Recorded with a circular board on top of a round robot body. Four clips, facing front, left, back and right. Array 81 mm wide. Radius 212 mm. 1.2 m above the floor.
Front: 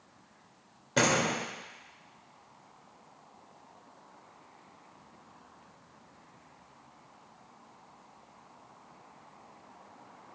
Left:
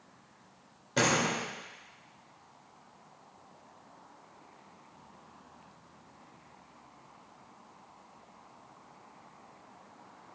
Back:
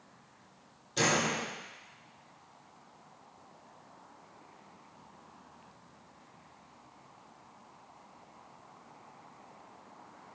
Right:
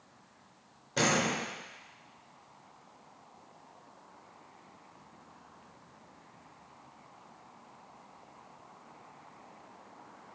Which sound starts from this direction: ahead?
A door slam, at 1.0 s.